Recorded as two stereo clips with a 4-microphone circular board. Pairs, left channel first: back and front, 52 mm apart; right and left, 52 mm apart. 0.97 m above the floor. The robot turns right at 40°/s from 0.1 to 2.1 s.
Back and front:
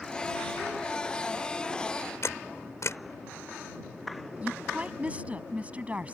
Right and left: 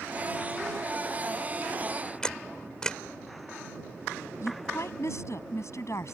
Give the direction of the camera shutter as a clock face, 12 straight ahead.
5 o'clock.